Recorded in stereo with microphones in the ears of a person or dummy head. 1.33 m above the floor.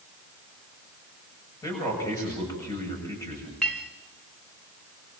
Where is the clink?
Centre (ahead or behind), 1.7 m.